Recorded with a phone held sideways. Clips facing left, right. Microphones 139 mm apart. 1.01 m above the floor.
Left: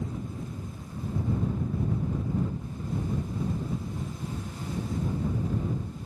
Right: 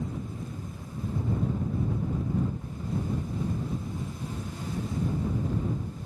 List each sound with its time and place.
Only background noise.